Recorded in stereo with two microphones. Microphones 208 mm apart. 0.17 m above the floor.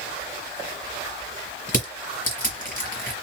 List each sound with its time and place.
1.7 s crushing: 45° left (ahead or behind), 2.0 m